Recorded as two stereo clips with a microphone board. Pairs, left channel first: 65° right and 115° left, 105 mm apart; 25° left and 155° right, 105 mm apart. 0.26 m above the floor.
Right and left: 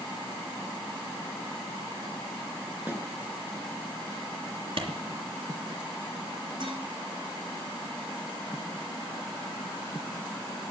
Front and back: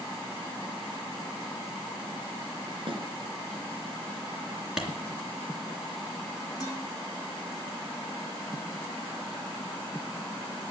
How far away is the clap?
About 3 m.